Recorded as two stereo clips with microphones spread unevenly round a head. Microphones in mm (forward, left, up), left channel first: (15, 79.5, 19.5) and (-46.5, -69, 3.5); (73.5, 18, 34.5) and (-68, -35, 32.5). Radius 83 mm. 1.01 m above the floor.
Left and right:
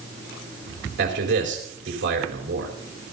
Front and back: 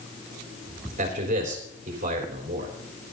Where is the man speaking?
120° right, 3.5 m.